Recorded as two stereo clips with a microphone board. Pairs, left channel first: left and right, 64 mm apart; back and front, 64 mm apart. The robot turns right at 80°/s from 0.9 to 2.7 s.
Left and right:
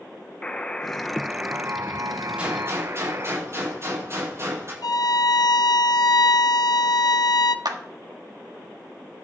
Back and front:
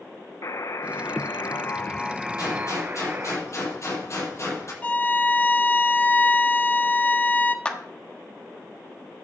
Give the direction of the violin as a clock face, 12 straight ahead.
8 o'clock.